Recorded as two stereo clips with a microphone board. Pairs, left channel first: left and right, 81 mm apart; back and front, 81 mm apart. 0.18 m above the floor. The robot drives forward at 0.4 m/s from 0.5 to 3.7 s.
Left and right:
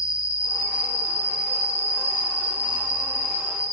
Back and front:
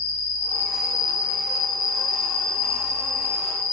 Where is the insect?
45° right, 1.7 m; by 3.7 s 145° right, 1.8 m.